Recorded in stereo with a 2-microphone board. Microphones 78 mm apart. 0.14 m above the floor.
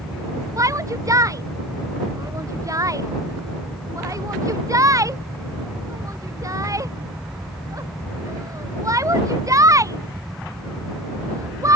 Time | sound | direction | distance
0.6 | a shout | 45° right (ahead or behind) | ?